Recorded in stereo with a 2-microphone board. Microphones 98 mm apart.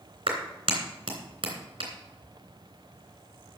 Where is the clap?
75° right (ahead or behind), 3 m.